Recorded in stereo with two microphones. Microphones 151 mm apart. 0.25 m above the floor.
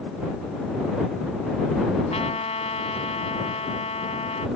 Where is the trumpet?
45° left (ahead or behind).